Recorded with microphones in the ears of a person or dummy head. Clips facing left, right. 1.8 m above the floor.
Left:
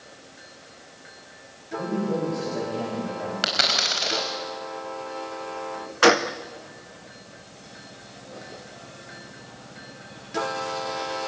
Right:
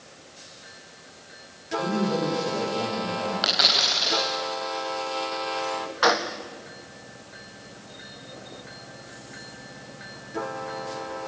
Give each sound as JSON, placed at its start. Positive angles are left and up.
{"t": 1.8, "sound": "a man speaking", "side_deg": 20, "distance_m": 9.0}
{"t": 3.4, "sound": "a dropped coin", "side_deg": 35, "distance_m": 4.5}
{"t": 6.0, "sound": "a gunshot", "side_deg": 40, "distance_m": 0.6}